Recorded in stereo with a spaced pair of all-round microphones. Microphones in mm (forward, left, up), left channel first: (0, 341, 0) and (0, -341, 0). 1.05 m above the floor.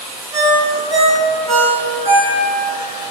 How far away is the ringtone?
About 1.0 m.